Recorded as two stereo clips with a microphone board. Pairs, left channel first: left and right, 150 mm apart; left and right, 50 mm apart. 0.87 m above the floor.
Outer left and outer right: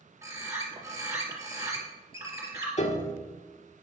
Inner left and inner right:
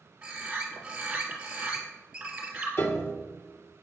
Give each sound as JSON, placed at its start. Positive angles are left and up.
{"t": 0.2, "sound": "a bird", "side_deg": -20, "distance_m": 3.0}
{"t": 2.8, "sound": "a piano", "side_deg": 50, "distance_m": 1.5}